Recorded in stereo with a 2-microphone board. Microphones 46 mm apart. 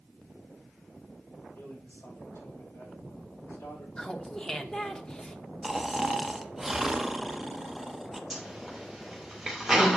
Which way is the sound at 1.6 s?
55° left (ahead or behind).